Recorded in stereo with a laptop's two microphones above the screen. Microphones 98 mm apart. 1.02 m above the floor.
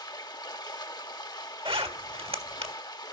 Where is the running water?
45° left (ahead or behind), 0.8 m.